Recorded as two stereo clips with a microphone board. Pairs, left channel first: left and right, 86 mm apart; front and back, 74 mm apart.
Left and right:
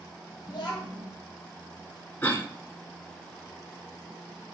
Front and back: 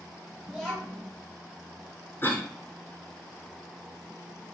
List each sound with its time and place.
0.5 s a child speaking: 80° left, 1.5 m
2.2 s a cough: 30° left, 1.6 m